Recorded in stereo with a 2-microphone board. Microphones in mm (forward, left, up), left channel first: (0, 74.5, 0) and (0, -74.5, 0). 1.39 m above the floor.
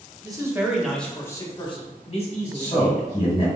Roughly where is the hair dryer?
I don't hear a hair dryer.